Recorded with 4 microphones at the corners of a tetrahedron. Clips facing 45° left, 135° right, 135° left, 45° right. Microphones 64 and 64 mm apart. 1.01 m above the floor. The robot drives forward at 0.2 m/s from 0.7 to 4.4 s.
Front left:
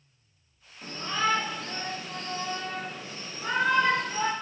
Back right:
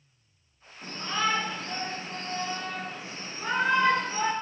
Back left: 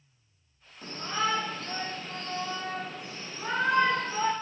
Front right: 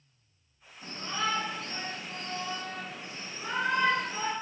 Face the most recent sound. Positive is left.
turn(degrees=150)